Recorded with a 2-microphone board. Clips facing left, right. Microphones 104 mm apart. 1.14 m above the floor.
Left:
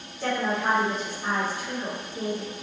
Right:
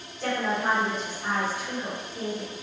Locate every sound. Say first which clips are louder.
0.2 s a woman speaking: left 1 dB; 15° left (ahead or behind), 1.7 m